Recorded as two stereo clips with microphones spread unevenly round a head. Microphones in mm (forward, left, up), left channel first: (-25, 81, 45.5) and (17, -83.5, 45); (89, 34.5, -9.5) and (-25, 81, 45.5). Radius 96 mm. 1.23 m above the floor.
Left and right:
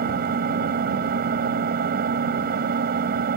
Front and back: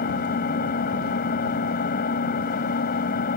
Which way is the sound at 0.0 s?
35° right.